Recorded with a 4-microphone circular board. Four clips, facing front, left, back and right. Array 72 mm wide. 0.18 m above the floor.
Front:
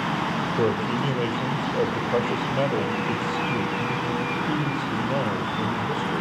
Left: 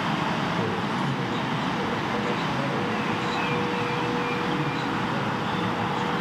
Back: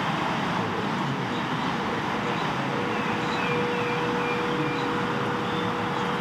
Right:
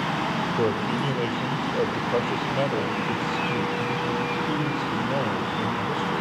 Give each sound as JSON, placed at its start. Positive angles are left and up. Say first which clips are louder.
{"t": 0.6, "sound": "a man speaking", "louder": "right 2 dB, front 4 dB", "azimuth_deg": -35, "distance_m": 4.5}